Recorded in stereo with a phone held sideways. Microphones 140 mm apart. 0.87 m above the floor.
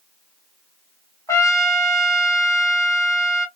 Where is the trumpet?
20° left (ahead or behind), 1.0 m.